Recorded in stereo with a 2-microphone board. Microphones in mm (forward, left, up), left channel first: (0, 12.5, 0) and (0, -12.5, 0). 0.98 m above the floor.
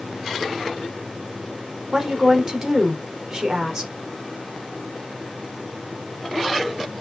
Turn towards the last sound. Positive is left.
turn(degrees=-25)  # may be behind; listen again after turning